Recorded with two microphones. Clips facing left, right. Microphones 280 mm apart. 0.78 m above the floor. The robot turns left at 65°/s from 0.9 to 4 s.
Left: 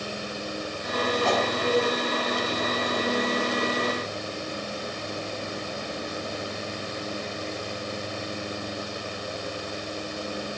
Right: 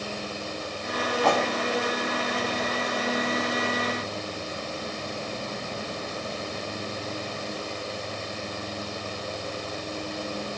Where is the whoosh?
65° right (ahead or behind), 3 m; by 1.5 s 50° right (ahead or behind), 3 m.